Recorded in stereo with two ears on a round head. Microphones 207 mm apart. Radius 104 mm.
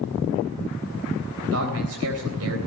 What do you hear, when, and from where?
1.4 s a man speaking: 70° right (ahead or behind), 3.5 m